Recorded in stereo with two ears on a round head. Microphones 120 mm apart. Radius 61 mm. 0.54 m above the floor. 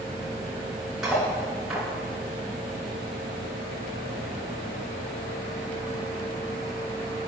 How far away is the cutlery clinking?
About 4.5 m.